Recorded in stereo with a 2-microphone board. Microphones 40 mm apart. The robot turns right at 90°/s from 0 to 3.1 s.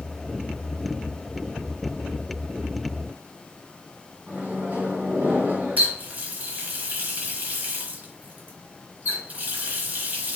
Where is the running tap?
45° right (ahead or behind), 1.0 m.